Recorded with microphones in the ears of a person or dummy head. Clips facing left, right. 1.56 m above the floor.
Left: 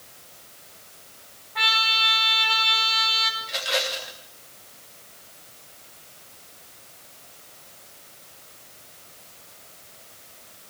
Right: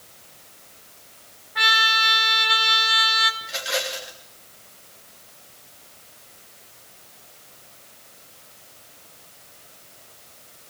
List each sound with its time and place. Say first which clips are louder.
1.6 s a trumpet: right 3 dB; 10° right (ahead or behind), 3.5 m
3.4 s a rattle: left 2 dB; centre (ahead or behind), 3 m